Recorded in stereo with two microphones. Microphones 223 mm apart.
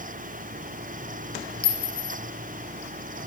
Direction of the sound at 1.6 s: 45° left (ahead or behind).